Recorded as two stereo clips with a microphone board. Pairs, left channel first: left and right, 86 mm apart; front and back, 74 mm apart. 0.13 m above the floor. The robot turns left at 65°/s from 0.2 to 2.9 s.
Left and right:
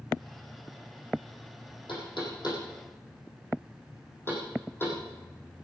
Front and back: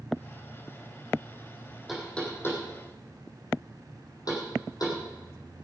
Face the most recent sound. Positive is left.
turn(degrees=30)